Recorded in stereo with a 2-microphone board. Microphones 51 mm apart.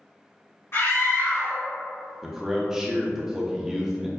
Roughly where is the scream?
Left.